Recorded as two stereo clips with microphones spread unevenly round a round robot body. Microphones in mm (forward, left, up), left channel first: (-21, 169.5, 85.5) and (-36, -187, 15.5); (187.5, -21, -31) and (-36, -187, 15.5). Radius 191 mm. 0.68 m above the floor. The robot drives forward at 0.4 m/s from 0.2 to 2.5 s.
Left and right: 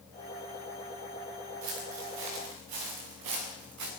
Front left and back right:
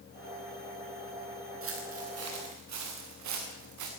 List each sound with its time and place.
1.6 s footsteps: 105° right, 5 m; by 3.9 s 140° right, 5 m